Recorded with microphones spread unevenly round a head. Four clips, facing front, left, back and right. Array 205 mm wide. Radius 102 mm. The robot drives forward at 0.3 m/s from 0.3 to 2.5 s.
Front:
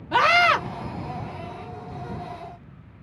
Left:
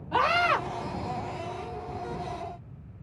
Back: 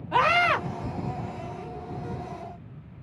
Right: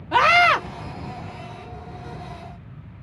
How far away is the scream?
About 1.7 m.